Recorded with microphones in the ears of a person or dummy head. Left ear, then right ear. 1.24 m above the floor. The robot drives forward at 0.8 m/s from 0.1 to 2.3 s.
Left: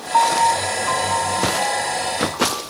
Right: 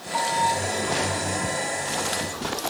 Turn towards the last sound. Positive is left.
turn(degrees=15)  # may be behind; listen again after turning